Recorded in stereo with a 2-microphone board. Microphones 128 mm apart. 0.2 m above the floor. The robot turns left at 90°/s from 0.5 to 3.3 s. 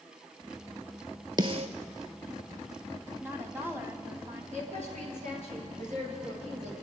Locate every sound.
1.4 s a snare drum: 35° right (ahead or behind), 1.0 m; by 1.7 s 60° right (ahead or behind), 1.0 m
3.2 s a woman speaking: 20° right (ahead or behind), 1.1 m
4.5 s a woman speaking: 70° right (ahead or behind), 3.5 m